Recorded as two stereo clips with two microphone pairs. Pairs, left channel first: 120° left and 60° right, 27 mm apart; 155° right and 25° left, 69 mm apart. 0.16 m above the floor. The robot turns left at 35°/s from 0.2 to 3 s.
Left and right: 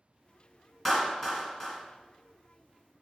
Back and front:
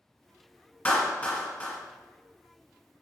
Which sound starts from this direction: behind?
A clap, at 0.8 s.